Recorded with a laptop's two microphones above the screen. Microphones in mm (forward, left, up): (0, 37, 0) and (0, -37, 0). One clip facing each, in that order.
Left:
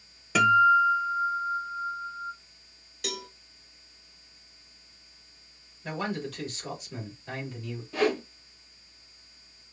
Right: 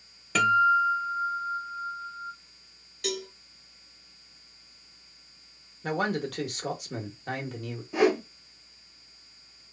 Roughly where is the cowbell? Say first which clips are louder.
Right 4 dB; centre.